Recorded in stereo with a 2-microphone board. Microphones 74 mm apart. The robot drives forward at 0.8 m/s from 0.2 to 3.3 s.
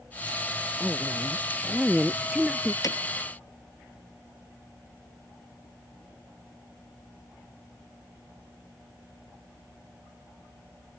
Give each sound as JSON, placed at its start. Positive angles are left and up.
{"t": 0.8, "sound": "a woman speaking", "side_deg": -5}
{"t": 2.8, "sound": "hammering", "side_deg": 55}